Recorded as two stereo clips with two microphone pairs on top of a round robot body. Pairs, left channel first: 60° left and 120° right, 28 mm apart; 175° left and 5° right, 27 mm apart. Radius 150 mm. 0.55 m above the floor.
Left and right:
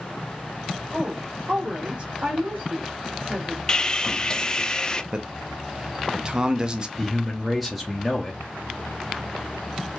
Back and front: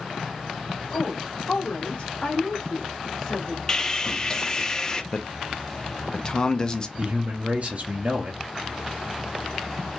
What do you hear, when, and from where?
0.9 s a woman speaking: straight behind, 1.5 m; by 3.6 s 85° right, 1.4 m
3.7 s sawing: 110° left, 0.5 m
5.1 s a man speaking: 175° left, 0.7 m
7.0 s a man speaking: 10° right, 0.9 m